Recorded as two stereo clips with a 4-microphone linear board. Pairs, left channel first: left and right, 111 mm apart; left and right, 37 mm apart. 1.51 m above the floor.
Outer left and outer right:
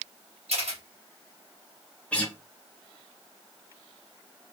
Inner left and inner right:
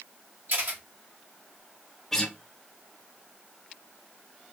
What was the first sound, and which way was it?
A camera shutter, 70° right (ahead or behind).